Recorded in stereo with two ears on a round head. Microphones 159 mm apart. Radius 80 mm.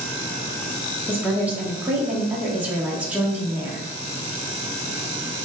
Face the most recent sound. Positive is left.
turn(degrees=-10)  # may be behind; listen again after turning